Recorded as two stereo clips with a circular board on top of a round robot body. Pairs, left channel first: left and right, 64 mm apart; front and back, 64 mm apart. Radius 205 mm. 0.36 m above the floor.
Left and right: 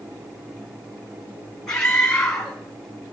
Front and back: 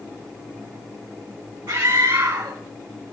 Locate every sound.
1.7 s a scream: 170° left, 6 m